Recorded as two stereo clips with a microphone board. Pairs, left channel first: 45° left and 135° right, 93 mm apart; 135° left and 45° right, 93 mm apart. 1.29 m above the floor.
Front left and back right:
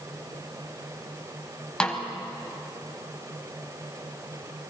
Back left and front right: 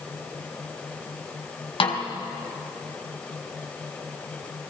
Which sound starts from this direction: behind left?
A snare drum, at 1.8 s.